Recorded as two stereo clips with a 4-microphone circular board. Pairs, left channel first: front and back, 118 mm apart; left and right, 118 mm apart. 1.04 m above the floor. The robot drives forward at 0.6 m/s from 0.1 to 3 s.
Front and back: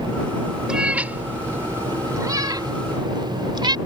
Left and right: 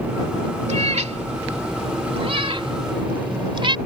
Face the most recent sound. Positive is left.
turn(degrees=-130)